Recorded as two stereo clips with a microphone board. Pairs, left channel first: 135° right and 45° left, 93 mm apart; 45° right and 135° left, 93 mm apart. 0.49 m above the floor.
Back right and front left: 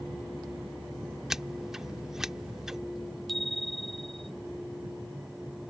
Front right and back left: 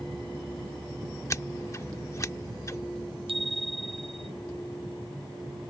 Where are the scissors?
35° right.